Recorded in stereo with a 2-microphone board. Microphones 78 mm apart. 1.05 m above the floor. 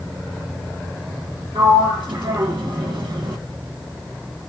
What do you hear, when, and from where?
1.6 s a sliding door: 75° right (ahead or behind), 1.4 m